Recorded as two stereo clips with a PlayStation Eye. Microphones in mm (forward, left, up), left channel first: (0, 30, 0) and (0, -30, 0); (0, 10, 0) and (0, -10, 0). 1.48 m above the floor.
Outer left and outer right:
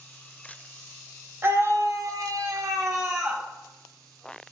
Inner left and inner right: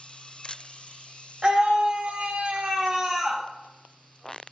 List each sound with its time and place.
1.4 s a scream: 40° right (ahead or behind), 1.5 m; by 3.4 s 35° right (ahead or behind), 1.6 m